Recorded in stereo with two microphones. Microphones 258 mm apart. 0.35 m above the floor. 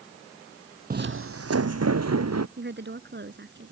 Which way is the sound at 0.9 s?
35° right (ahead or behind).